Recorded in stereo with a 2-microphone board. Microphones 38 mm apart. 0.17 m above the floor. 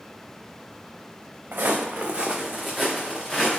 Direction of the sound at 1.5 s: 65° right (ahead or behind).